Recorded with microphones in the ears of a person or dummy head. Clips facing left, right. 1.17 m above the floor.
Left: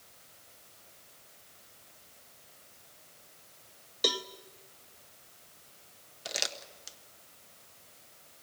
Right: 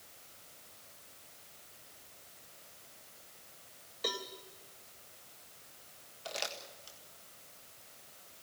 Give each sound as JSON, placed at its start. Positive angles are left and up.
{"t": 4.0, "sound": "a cowbell", "side_deg": 35, "distance_m": 0.7}
{"t": 6.2, "sound": "crumpling", "side_deg": 30, "distance_m": 1.6}